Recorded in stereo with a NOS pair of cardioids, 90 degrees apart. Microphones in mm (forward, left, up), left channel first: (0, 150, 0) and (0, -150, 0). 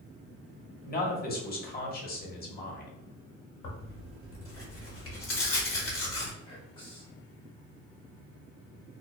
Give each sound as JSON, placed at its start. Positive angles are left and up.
{"t": 0.8, "sound": "a man speaking", "azimuth_deg": 30, "distance_m": 1.1}
{"t": 3.6, "sound": "tearing paper", "azimuth_deg": 45, "distance_m": 1.2}
{"t": 6.5, "sound": "whispering", "azimuth_deg": 15, "distance_m": 0.6}